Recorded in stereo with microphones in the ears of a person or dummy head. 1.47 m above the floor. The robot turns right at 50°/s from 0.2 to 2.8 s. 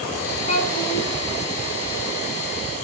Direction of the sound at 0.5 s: 40° left.